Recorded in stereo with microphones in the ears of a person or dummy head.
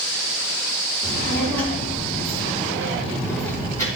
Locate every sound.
1.0 s a child speaking: 10° left (ahead or behind), 3 m; by 3.9 s 20° left (ahead or behind), 4.5 m